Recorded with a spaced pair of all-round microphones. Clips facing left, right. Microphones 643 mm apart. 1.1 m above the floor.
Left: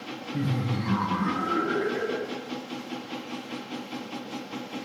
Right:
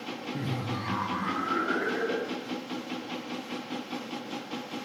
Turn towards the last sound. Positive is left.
turn(degrees=45)  # may be behind; listen again after turning